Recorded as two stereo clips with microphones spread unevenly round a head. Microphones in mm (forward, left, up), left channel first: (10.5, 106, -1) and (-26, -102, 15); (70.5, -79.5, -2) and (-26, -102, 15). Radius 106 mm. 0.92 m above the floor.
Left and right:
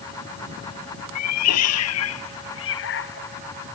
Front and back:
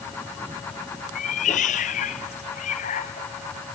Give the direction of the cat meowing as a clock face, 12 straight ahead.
10 o'clock.